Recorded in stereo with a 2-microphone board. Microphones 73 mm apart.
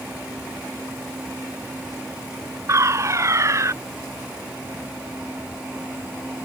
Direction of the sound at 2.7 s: 40° right (ahead or behind).